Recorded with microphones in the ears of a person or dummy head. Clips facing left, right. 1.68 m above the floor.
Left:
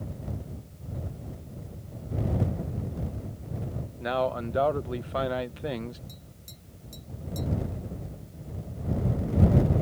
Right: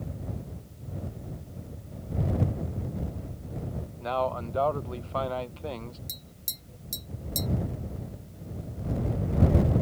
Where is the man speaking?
20° left (ahead or behind).